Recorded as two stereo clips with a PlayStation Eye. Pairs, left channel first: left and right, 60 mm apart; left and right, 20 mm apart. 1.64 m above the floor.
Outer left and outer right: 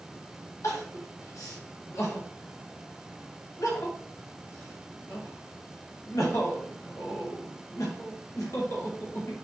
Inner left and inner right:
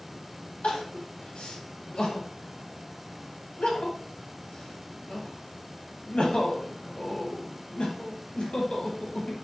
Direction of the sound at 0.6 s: 70° left (ahead or behind).